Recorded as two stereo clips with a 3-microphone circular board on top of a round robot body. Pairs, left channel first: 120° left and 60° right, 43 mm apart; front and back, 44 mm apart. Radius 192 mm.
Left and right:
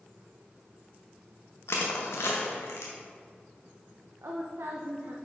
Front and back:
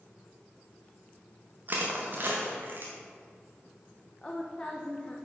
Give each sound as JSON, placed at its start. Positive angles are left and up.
{"t": 1.7, "sound": "crushing", "azimuth_deg": 140, "distance_m": 0.6}
{"t": 4.2, "sound": "a woman speaking", "azimuth_deg": -70, "distance_m": 0.6}